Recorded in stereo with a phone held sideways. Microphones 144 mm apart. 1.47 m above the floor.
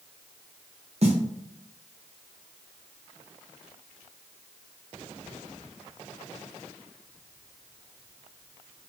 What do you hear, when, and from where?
1.0 s a snare drum: 50° right (ahead or behind), 0.9 m